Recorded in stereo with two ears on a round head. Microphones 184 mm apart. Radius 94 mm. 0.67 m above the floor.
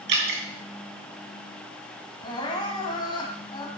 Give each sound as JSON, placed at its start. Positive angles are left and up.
{"t": 0.1, "sound": "dripping", "side_deg": -65, "distance_m": 3.0}
{"t": 2.2, "sound": "crying", "side_deg": 25, "distance_m": 2.0}